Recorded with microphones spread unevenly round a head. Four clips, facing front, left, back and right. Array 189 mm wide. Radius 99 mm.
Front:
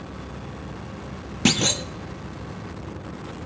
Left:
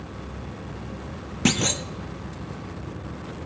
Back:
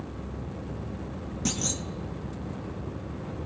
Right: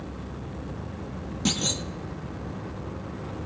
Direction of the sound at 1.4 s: 35° left.